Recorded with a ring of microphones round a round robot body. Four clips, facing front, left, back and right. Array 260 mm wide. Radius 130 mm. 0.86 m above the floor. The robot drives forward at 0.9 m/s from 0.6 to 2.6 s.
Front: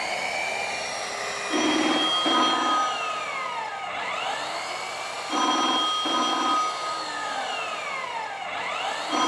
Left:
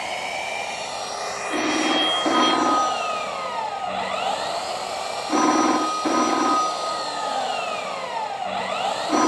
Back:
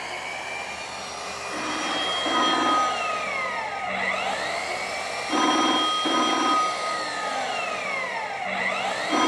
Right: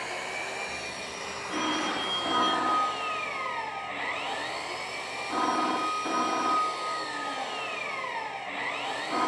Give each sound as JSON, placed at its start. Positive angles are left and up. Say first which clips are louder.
{"t": 0.0, "sound": "an engine running", "louder": "left 7 dB, front 4 dB", "azimuth_deg": 55, "distance_m": 1.8}
{"t": 1.5, "sound": "a phone ringing", "louder": "left 8 dB, front 7 dB", "azimuth_deg": 35, "distance_m": 1.0}